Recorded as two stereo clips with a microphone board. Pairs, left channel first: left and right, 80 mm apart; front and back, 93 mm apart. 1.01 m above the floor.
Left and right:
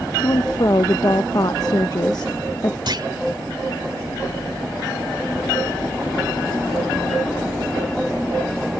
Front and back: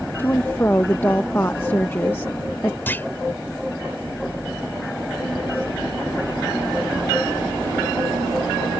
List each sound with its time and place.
0.2 s a woman speaking: 60° left
2.9 s a clunk: 65° right